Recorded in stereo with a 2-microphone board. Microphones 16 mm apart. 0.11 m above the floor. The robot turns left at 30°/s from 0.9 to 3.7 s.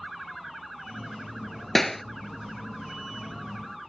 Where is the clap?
20° left (ahead or behind); by 2.0 s 10° left (ahead or behind).